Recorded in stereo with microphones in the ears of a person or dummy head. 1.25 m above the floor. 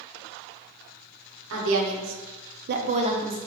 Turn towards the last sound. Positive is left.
turn(degrees=-20)  # may be behind; listen again after turning